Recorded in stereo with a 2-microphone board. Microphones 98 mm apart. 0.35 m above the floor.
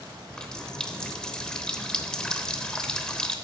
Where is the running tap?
5° left (ahead or behind), 0.9 m.